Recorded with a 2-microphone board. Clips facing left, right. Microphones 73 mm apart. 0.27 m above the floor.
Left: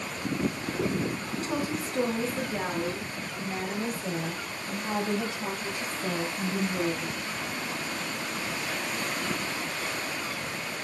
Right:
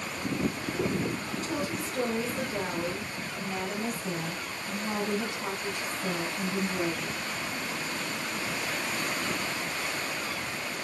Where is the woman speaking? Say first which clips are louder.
Left 3 dB; 50° left (ahead or behind), 2.5 m; by 7.2 s 75° left (ahead or behind), 8.5 m.